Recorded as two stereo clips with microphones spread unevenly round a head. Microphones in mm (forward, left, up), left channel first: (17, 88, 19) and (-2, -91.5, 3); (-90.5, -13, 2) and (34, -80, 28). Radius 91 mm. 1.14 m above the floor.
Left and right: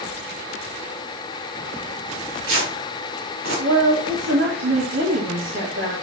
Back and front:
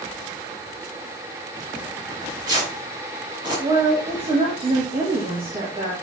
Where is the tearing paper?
90° right, 4.5 m.